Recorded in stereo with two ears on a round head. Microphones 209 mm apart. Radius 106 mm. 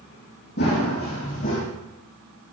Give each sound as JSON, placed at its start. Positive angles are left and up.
{"t": 0.6, "sound": "running footsteps", "side_deg": 45, "distance_m": 3.5}